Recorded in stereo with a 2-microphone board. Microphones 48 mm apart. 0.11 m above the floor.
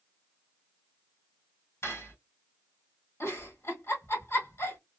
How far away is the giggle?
About 2 m.